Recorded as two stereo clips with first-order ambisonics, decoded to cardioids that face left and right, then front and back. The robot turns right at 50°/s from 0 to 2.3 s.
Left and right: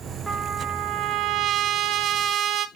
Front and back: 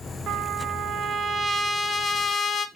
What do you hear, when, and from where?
0.3 s a trumpet: 170° right, 0.8 m; by 2.7 s 65° right, 0.8 m